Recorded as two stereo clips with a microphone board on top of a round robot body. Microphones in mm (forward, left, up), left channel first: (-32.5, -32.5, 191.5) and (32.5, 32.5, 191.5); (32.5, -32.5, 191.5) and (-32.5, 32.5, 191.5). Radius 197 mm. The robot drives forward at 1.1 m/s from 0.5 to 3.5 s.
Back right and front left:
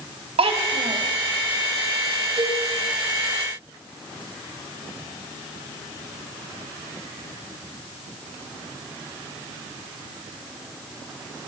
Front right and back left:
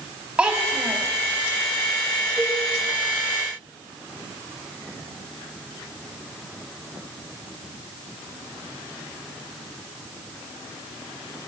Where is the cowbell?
25° left, 8 m; by 2.6 s 30° left, 8 m.